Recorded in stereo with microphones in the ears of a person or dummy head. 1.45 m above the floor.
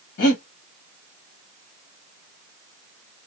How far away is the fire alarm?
I don't hear a fire alarm.